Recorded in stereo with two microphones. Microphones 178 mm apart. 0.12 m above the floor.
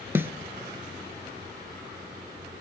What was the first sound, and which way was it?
A snare drum, 10° right (ahead or behind).